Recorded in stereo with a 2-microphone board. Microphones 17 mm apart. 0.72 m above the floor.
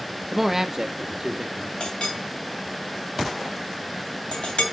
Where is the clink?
85° left, 2.5 m.